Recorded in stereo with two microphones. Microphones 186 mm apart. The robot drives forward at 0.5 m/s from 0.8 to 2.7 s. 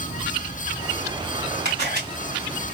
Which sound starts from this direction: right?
A camera shutter, at 1.6 s.